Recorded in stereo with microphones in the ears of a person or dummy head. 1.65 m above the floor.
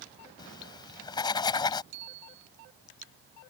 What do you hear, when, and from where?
0.4 s writing: 20° left (ahead or behind)
1.9 s a bicycle bell: 55° right (ahead or behind)